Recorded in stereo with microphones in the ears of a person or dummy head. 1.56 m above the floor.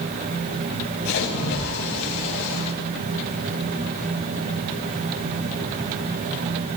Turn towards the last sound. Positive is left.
turn(degrees=60)  # may be behind; listen again after turning